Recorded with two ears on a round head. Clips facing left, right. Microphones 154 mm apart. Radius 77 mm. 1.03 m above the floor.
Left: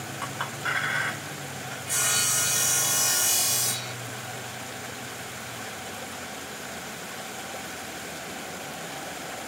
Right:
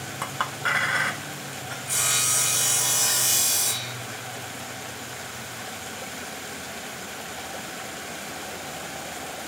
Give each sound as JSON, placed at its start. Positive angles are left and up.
{"t": 0.2, "sound": "a clink", "side_deg": -55, "distance_m": 0.8}
{"t": 1.9, "sound": "sawing", "side_deg": -5, "distance_m": 2.5}